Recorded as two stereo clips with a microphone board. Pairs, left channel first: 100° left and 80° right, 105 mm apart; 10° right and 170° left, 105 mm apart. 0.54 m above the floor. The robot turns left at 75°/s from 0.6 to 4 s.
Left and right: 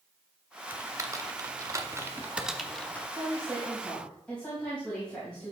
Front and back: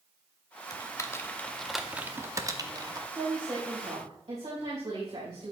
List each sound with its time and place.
0.7 s typing on a keyboard: 25° right, 0.8 m; by 3.0 s 160° left, 0.8 m
3.1 s a woman speaking: 115° right, 3.5 m; by 5.5 s straight behind, 3.5 m